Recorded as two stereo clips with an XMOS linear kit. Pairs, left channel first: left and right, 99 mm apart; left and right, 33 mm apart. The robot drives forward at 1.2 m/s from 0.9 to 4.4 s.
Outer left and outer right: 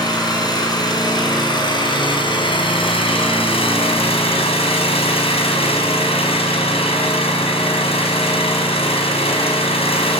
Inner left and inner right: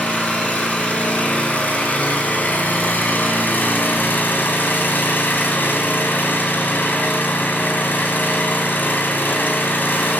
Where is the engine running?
45° left (ahead or behind), 6 m; by 10.2 s 80° left, 4.5 m.